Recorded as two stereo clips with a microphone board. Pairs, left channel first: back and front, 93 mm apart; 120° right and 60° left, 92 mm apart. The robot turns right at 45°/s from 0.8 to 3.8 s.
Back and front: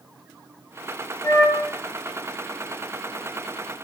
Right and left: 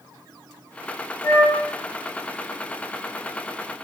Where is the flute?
160° right, 0.5 m; by 1.6 s 145° right, 0.5 m.